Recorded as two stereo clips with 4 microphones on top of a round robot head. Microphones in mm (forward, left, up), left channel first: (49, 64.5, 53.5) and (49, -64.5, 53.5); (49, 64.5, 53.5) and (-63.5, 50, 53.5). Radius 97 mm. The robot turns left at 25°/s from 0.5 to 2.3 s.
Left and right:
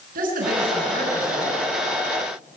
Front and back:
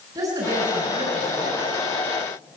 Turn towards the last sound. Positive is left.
turn(degrees=-150)